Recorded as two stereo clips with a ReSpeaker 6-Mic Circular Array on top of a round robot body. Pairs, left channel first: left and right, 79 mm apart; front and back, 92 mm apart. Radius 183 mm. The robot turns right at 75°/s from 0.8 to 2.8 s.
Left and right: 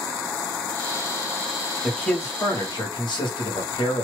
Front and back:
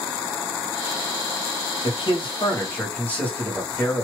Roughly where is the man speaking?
Ahead.